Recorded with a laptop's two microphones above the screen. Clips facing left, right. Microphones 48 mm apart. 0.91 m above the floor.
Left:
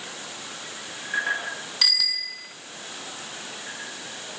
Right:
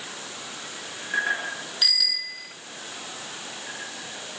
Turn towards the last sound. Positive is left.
turn(degrees=85)